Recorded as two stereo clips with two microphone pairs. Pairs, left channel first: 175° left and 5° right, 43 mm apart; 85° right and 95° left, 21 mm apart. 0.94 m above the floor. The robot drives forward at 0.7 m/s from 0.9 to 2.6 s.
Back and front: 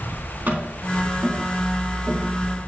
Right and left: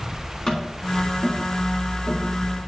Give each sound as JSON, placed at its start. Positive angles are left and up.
{"t": 0.5, "sound": "tapping", "azimuth_deg": -45, "distance_m": 4.0}